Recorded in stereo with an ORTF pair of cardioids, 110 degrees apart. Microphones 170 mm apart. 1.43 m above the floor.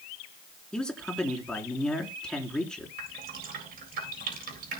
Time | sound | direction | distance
0.7 | a man speaking | 5° left | 4 m
3.0 | dripping | 55° right | 8.5 m